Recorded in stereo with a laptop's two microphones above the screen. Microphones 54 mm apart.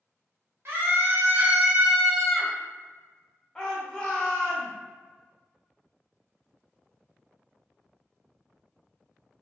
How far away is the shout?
About 0.9 m.